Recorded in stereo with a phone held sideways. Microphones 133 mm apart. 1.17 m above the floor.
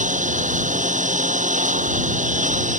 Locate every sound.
0.0 s a lawn mower: 85° right